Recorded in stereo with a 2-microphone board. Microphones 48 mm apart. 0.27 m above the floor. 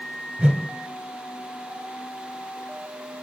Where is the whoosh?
35° right (ahead or behind), 0.9 m.